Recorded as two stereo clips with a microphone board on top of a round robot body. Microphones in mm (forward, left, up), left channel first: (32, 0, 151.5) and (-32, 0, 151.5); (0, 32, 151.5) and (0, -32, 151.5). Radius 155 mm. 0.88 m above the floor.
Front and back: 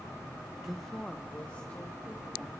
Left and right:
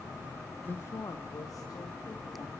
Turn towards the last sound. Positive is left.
turn(degrees=65)